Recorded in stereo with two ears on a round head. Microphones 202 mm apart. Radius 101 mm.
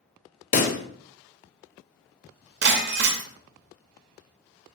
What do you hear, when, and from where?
0.5 s a pop: 35° left (ahead or behind), 0.6 m
2.6 s breaking glass: 50° right (ahead or behind), 0.6 m